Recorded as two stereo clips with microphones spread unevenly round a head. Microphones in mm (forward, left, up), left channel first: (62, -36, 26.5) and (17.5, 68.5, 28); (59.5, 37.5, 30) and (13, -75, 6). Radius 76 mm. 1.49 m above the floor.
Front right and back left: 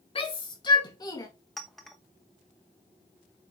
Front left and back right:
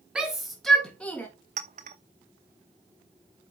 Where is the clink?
155° right, 0.9 m.